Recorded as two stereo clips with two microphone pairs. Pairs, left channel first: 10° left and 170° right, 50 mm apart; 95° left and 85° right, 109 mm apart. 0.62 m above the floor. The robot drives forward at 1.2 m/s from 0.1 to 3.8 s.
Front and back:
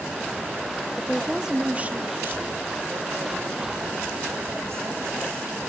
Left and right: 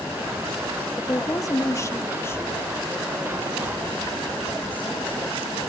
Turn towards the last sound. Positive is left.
turn(degrees=170)